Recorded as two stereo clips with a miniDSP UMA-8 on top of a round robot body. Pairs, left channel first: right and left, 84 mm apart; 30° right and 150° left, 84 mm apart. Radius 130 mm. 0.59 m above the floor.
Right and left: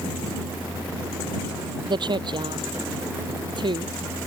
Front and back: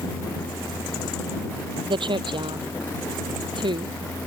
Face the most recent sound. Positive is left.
turn(degrees=120)